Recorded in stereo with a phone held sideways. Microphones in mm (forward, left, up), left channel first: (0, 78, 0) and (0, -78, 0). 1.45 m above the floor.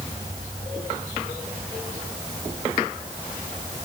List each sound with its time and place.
Only background noise.